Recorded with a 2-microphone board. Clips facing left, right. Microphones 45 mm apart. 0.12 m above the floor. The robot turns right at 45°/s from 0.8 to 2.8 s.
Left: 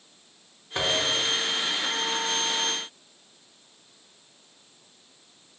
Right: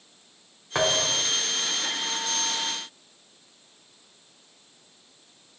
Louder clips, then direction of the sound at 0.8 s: Right 1 dB; 80° right.